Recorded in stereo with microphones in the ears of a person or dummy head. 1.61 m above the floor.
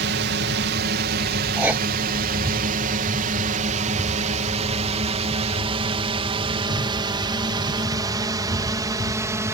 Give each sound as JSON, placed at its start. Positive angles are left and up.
{"t": 0.0, "sound": "a drone", "side_deg": -50}
{"t": 1.6, "sound": "writing", "side_deg": -10}